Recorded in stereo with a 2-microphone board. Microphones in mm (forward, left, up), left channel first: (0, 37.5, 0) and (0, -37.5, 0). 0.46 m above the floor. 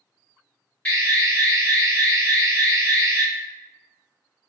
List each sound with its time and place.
0.8 s an alarm: 20° left (ahead or behind), 1.5 m